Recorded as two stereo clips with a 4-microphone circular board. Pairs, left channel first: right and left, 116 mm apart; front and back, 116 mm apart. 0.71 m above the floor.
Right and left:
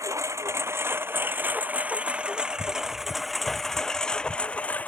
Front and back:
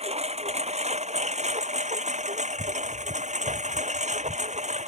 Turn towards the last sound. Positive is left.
turn(degrees=-165)